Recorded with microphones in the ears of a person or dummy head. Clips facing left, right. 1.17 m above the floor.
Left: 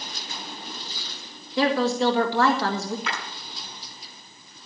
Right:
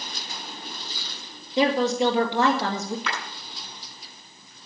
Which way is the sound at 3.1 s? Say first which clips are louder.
Right 1 dB; 70° right (ahead or behind).